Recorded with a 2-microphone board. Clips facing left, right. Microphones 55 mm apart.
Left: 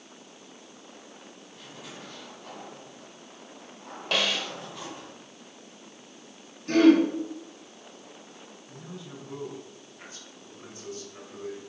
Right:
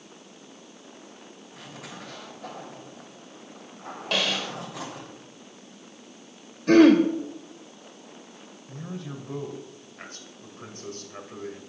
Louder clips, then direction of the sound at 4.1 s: Even; centre (ahead or behind).